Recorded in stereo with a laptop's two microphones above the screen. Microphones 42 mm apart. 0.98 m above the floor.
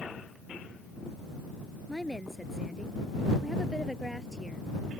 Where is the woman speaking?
5° right (ahead or behind); by 4.7 s 5° left (ahead or behind).